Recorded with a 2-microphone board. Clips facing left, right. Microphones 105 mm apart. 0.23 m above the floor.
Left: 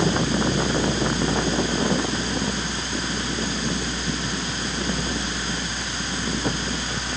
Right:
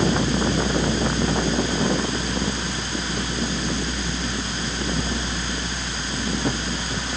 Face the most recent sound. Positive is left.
No sound to turn to.